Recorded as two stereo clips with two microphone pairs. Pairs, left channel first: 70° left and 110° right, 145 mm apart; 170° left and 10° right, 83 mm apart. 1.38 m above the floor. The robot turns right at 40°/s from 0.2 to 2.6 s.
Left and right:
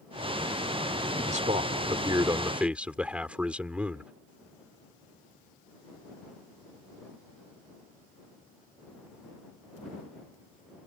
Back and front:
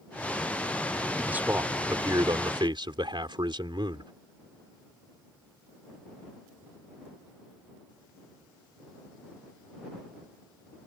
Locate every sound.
1.3 s a man speaking: 80° right; by 4.1 s 30° right